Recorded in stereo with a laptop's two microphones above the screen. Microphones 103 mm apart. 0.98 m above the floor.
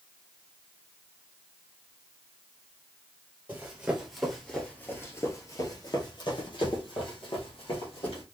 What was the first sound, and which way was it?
Running footsteps, 15° right (ahead or behind).